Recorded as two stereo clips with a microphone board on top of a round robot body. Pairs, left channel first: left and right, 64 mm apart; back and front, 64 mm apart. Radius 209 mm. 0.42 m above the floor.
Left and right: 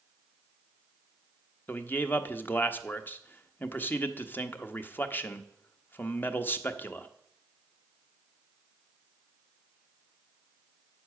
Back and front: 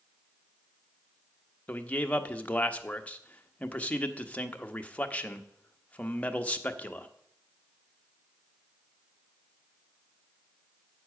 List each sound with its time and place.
1.7 s a man speaking: 125° left, 1.2 m